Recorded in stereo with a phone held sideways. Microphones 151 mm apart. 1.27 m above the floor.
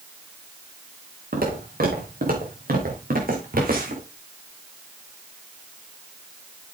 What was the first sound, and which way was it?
Footsteps, 70° right (ahead or behind).